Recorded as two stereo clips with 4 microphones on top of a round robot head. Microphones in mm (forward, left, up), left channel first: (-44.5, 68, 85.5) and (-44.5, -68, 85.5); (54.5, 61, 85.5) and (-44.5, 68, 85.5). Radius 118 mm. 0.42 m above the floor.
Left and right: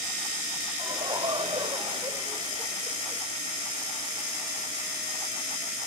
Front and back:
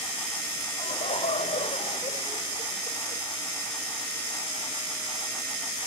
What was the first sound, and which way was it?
Laughter, 30° right.